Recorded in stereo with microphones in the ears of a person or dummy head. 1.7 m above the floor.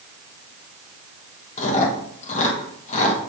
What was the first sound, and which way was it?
Chewing, 40° left (ahead or behind).